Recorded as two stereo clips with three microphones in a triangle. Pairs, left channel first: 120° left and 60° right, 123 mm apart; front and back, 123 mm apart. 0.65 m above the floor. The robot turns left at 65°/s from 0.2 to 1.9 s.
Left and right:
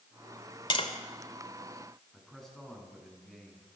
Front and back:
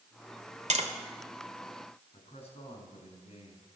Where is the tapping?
165° left, 2 m; by 0.9 s 155° left, 2 m.